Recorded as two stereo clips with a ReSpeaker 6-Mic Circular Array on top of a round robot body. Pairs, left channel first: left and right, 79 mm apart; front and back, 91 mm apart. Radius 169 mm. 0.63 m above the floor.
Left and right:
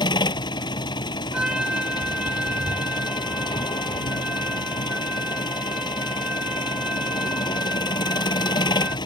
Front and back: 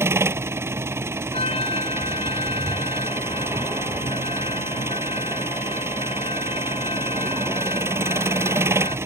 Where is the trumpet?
10° right.